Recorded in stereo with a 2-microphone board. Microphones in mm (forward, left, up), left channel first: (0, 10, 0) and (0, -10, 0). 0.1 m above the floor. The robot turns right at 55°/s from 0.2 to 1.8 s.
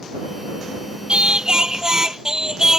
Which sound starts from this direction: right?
Singing, at 1.1 s.